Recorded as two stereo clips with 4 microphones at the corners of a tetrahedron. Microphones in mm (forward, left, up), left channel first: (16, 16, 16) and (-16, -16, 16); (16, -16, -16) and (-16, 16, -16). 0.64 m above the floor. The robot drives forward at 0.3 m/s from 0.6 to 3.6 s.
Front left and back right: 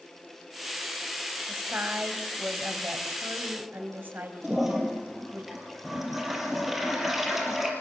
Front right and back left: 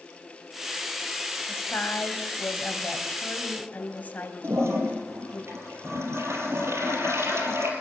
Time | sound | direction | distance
1.5 | a woman speaking | 85° right | 3.5 m
4.4 | a toilet flushing | 140° left | 5 m